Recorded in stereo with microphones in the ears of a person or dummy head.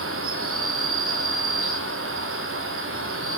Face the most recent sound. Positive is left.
turn(degrees=-65)  # may be behind; listen again after turning